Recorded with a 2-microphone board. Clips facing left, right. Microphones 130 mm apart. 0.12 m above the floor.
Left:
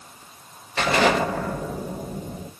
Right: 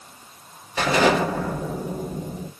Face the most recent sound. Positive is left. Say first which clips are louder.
# right 1 dB
turn(degrees=-10)  # may be behind; listen again after turning